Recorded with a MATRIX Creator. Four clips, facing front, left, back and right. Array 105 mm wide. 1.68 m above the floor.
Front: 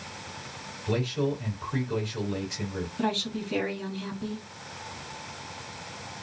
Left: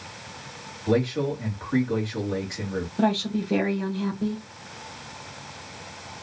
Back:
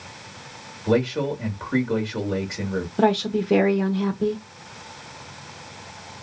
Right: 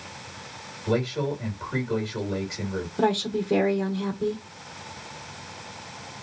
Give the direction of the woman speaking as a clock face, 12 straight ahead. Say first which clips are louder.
Even, back 10 dB; 6 o'clock.